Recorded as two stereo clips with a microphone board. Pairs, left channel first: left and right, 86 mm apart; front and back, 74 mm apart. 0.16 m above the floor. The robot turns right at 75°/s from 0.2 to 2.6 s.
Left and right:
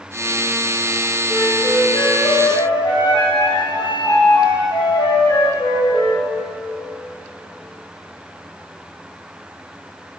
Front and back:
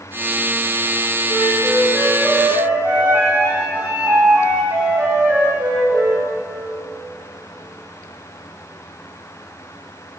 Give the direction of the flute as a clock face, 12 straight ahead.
12 o'clock.